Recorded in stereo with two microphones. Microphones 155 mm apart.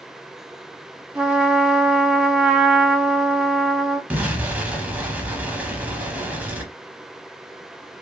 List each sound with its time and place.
1.1 s a trumpet: 5° right (ahead or behind), 0.8 m
4.1 s an explosion: 10° right (ahead or behind), 0.8 m